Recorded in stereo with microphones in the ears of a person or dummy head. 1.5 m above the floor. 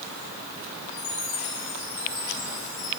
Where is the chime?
45° left (ahead or behind), 9 m.